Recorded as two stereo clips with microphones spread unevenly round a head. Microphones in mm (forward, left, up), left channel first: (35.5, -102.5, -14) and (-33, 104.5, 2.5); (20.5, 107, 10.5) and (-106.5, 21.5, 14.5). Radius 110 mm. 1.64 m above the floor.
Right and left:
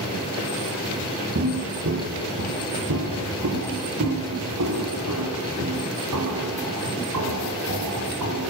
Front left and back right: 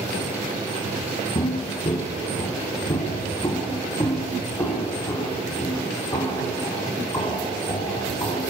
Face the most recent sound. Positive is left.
turn(degrees=105)